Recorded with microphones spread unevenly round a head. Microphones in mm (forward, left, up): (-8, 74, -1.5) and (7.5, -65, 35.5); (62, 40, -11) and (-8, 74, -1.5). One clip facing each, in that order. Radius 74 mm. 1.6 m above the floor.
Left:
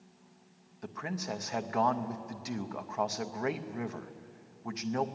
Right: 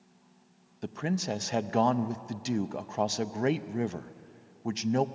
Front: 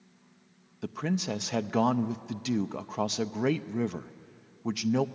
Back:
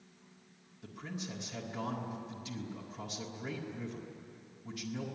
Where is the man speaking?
30° right, 0.5 m.